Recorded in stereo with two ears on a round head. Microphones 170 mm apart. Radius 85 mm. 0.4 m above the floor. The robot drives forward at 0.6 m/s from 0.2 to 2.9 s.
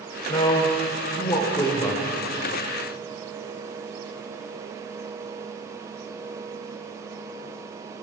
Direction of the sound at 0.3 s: 25° left (ahead or behind).